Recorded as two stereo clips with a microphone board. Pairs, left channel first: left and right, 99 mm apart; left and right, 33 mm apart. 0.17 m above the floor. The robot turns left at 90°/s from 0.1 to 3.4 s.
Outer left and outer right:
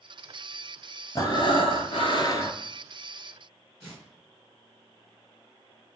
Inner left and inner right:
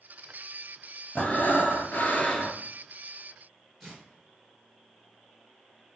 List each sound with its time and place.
1.1 s breathing: 145° left, 0.7 m; by 2.6 s 20° left, 0.7 m
3.8 s tearing paper: centre (ahead or behind), 2 m